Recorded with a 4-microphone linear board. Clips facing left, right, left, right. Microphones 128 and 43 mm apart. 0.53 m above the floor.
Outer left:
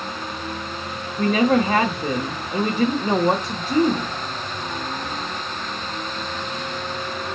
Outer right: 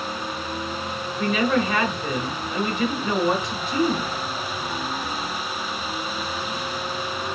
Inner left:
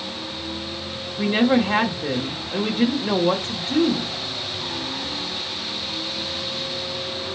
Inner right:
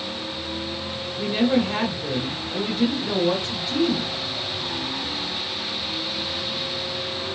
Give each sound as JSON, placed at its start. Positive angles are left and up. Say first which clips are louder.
{"t": 1.2, "sound": "a woman speaking", "louder": "outer left 4 dB, inner left 3 dB", "side_deg": 40, "distance_m": 0.9}